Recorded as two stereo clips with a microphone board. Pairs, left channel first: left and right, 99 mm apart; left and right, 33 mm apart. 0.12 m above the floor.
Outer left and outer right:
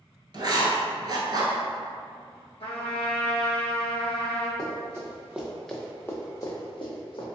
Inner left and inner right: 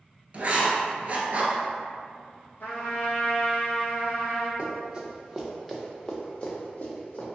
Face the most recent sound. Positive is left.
turn(degrees=60)  # may be behind; listen again after turning